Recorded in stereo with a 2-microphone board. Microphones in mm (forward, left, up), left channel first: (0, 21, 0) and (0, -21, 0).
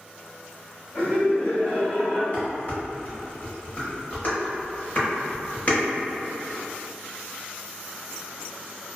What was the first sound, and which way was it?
Laughter, 40° left (ahead or behind).